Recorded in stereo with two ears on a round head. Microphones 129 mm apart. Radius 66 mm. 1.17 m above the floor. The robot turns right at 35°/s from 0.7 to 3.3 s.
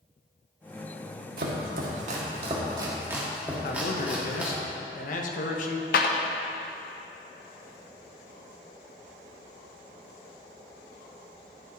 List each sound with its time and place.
1.4 s chopping: 70° right (ahead or behind), 1.3 m; by 4.6 s 10° right (ahead or behind), 1.3 m
3.6 s a man speaking: 65° left (ahead or behind), 1.1 m
5.9 s a clap: 70° left (ahead or behind), 0.8 m